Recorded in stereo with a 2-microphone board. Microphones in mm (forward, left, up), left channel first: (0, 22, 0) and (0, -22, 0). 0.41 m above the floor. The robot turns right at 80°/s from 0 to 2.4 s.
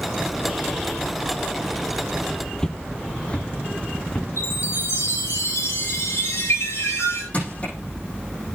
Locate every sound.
2.6 s footsteps: 15° left (ahead or behind), 0.7 m; by 4.3 s 30° left (ahead or behind), 1.9 m
4.4 s a chime: 85° left, 6.5 m
7.3 s crushing: 35° left (ahead or behind), 8 m